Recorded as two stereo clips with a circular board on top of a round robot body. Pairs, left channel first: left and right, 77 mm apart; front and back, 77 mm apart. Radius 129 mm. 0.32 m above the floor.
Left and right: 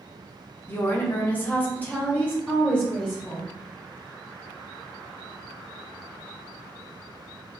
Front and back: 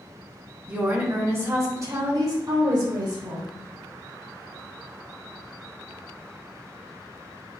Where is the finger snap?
No finger snap in this recording.